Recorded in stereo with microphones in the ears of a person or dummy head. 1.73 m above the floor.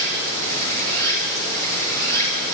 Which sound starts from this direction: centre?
Running water, at 0.0 s.